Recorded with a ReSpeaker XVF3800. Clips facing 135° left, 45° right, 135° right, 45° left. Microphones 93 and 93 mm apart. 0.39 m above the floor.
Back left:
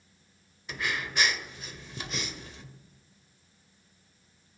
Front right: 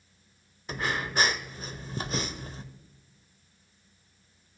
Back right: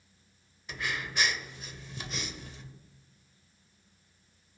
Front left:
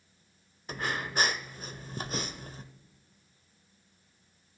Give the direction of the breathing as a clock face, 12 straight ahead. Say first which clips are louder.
Front right 3 dB, front left 3 dB; 12 o'clock.